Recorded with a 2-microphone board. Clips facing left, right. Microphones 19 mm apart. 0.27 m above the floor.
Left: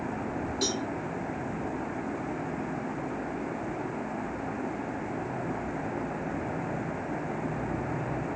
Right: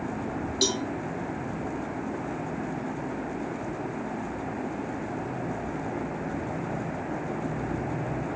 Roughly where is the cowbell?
Right.